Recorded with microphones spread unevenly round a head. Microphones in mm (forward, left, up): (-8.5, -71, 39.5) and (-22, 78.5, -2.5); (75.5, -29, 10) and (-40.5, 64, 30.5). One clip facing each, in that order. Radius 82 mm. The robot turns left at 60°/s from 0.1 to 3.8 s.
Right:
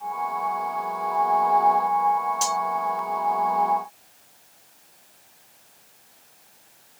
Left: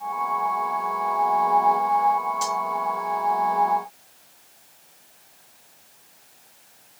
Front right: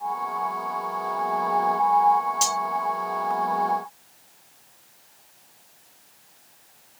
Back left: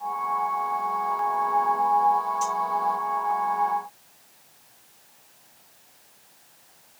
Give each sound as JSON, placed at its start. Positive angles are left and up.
{"t": 2.4, "sound": "cutlery clinking", "azimuth_deg": -30}